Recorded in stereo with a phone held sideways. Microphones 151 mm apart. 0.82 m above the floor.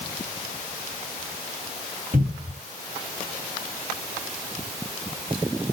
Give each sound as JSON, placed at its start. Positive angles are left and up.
{"t": 2.1, "sound": "a cupboard door", "side_deg": -65, "distance_m": 2.0}